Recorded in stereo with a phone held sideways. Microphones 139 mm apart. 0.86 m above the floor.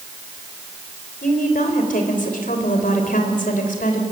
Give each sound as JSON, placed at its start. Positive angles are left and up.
{"t": 1.2, "sound": "a woman speaking", "side_deg": 80, "distance_m": 3.5}